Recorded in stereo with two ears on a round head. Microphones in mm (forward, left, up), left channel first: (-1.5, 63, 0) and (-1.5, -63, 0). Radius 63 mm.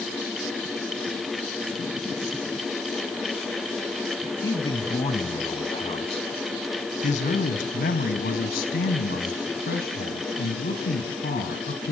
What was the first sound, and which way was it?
A man speaking, 25° left (ahead or behind).